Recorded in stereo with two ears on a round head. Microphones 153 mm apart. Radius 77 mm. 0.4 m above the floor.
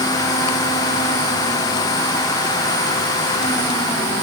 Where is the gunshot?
No gunshot in this recording.